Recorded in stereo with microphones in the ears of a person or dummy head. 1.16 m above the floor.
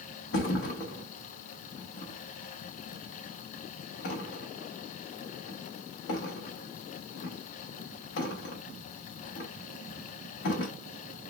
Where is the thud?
60° left (ahead or behind), 1.0 m.